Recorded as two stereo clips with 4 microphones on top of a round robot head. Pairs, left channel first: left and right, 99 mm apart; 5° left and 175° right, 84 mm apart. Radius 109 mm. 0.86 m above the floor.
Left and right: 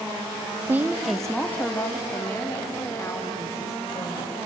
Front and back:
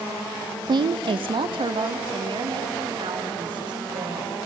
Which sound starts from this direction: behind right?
A woman speaking, at 0.7 s.